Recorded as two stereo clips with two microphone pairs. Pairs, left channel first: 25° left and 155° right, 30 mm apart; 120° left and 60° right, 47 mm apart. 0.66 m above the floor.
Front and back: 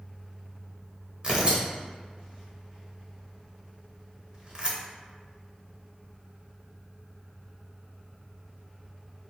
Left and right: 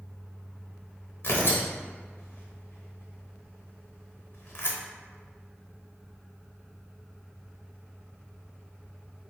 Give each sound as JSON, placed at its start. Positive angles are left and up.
{"t": 1.2, "sound": "tearing paper", "azimuth_deg": 150, "distance_m": 0.7}